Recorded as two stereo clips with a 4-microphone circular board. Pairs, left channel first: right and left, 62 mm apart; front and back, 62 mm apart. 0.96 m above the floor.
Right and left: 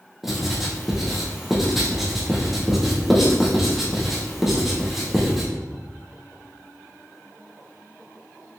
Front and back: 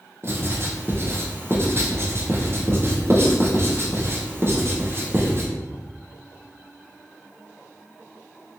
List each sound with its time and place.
0.2 s writing: 175° left, 0.6 m